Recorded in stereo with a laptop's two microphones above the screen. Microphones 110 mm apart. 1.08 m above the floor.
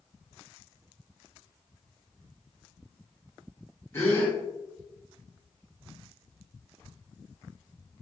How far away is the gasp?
About 1.8 m.